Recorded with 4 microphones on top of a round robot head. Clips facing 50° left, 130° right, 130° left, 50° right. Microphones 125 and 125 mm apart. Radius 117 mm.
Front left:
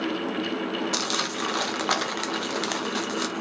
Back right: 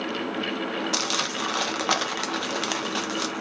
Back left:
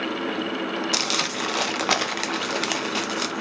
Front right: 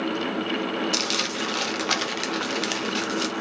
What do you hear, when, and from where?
0.9 s crumpling: 145° left, 0.9 m